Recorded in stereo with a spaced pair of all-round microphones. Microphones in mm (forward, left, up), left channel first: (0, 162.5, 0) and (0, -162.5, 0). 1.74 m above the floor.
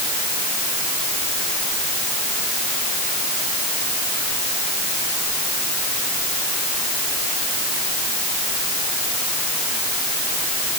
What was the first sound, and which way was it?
Only background noise.